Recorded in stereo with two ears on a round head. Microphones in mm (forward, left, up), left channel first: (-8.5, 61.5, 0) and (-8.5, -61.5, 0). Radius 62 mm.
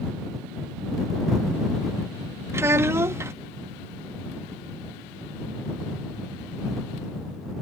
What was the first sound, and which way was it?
A child speaking, 20° right (ahead or behind).